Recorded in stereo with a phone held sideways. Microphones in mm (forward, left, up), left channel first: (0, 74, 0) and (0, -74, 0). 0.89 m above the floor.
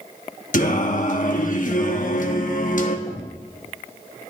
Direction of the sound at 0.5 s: 60° left (ahead or behind).